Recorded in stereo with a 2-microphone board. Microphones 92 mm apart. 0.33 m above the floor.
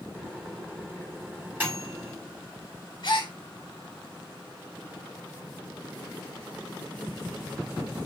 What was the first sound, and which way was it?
A microwave, 20° right (ahead or behind).